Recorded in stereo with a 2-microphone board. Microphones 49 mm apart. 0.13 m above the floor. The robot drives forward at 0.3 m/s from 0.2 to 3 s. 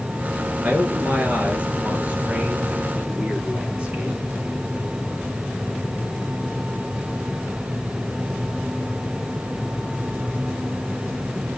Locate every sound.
0.6 s a man speaking: 30° right (ahead or behind), 2.5 m; by 4.2 s 25° right (ahead or behind), 3 m